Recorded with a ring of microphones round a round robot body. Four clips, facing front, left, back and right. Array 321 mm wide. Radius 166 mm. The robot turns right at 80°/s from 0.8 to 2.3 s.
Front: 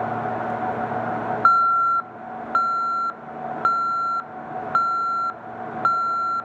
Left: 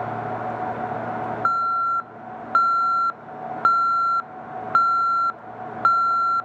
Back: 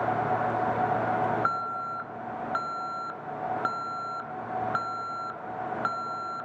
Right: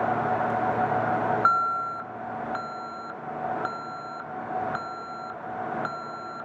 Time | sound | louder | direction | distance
1.4 | an alarm | left 2 dB, front 13 dB | 5° right | 0.8 m